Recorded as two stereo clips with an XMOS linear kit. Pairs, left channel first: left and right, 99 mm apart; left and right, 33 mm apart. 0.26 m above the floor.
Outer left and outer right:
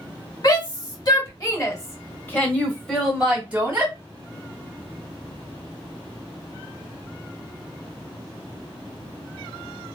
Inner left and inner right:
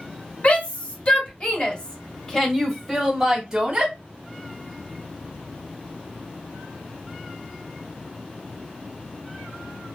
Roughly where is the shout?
Left.